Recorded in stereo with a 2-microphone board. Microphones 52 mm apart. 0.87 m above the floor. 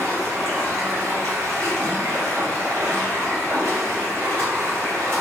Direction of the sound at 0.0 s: 65° right (ahead or behind).